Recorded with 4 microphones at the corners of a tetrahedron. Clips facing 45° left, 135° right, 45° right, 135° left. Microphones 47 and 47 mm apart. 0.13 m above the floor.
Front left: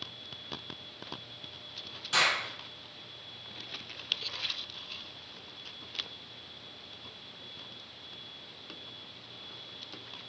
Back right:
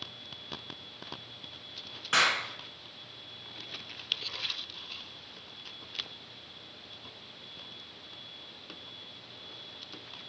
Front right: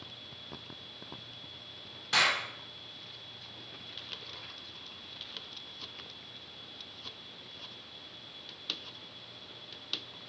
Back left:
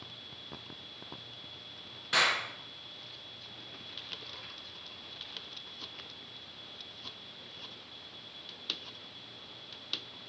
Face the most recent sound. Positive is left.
turn(degrees=-140)